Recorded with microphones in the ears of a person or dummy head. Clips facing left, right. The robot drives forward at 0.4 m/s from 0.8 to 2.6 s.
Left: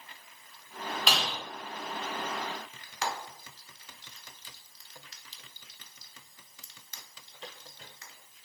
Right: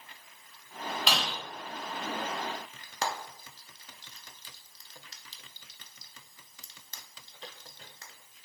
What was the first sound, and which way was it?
Breaking glass, 5° left (ahead or behind).